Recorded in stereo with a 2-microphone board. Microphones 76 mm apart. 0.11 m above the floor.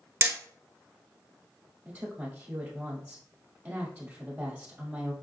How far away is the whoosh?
No whoosh in this recording.